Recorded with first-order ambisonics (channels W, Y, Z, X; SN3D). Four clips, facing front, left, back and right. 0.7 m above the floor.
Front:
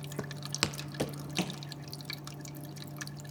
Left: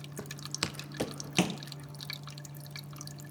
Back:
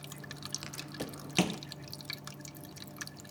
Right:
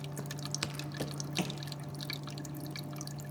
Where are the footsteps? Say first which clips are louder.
Left 3 dB, front 9 dB; 10° left, 1.4 m; by 1.6 s 145° left, 0.8 m.